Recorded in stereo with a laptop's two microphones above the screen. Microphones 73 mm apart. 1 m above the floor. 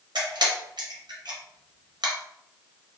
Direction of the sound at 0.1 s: 80° right.